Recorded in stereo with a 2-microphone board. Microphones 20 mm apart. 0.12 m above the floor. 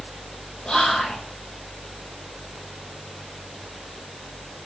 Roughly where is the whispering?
Left.